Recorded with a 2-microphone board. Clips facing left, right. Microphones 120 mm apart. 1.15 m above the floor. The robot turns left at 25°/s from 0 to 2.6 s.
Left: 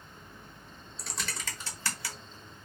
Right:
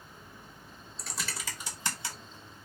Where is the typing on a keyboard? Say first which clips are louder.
Even; centre (ahead or behind), 0.9 m; by 2.6 s 35° right (ahead or behind), 0.9 m.